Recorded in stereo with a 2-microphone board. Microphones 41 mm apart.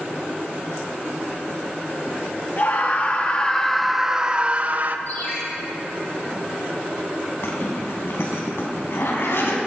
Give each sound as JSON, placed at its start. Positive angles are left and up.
{"t": 2.6, "sound": "a scream", "side_deg": 40, "distance_m": 1.3}
{"t": 5.1, "sound": "a ringtone", "side_deg": 45, "distance_m": 6.0}
{"t": 7.4, "sound": "a zipper", "side_deg": 75, "distance_m": 3.5}